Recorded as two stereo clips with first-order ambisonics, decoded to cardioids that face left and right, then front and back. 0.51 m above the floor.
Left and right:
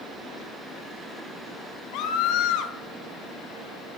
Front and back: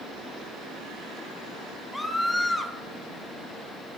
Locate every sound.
1.9 s a scream: 85° left, 1.8 m